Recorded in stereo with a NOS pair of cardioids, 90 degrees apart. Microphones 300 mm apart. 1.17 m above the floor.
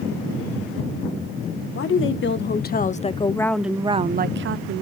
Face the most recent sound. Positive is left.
turn(degrees=-55)